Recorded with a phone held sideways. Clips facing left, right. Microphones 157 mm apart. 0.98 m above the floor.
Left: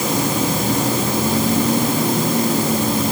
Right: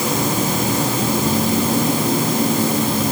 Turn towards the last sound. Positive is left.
No sound to turn to.